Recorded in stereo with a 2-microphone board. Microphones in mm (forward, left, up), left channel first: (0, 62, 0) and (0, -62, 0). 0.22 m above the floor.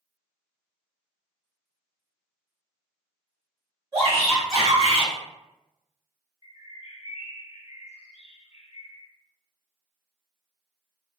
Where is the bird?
60° left (ahead or behind), 0.6 m.